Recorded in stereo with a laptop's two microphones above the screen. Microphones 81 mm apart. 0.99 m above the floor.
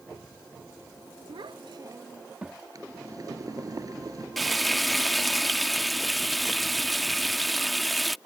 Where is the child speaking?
65° right (ahead or behind); by 2.6 s 10° right (ahead or behind).